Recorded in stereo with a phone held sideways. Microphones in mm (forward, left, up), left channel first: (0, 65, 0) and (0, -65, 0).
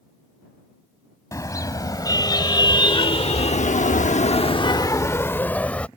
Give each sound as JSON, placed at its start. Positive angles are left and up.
{"t": 1.3, "sound": "a car horn", "side_deg": 25}